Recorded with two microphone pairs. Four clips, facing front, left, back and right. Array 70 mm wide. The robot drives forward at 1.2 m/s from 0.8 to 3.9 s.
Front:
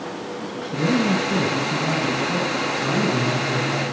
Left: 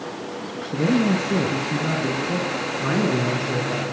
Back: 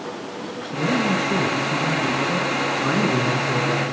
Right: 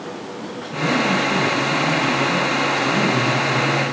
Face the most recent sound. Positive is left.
turn(degrees=150)